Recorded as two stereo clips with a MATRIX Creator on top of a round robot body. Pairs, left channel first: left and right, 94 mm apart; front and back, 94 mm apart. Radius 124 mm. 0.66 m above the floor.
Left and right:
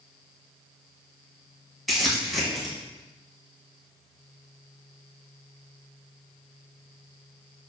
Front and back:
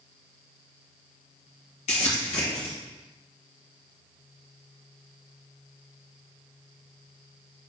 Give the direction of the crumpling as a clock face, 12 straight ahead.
12 o'clock.